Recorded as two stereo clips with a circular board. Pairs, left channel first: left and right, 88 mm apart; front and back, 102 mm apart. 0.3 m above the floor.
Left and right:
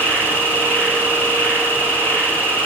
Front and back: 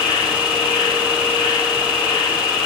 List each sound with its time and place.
0.0 s an insect: 20° left, 1.2 m